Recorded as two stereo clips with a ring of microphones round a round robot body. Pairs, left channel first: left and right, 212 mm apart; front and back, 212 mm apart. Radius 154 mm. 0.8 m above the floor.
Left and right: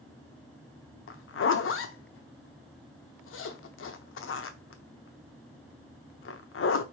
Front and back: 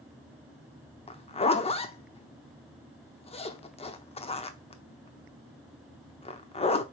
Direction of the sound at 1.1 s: 65° left.